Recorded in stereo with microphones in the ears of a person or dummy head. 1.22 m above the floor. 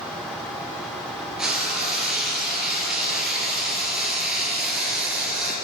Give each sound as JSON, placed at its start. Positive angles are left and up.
{"t": 1.4, "sound": "frying", "side_deg": 0, "distance_m": 3.5}